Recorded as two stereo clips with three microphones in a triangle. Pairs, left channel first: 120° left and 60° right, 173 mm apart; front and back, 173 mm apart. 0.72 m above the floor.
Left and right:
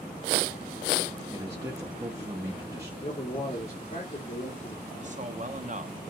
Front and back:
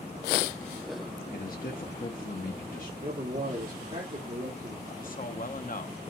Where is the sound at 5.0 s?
25° right, 0.8 m.